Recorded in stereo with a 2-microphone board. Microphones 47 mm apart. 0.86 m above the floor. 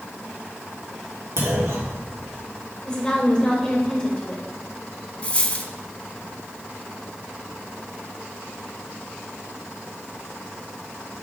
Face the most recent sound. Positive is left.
turn(degrees=30)  # may be behind; listen again after turning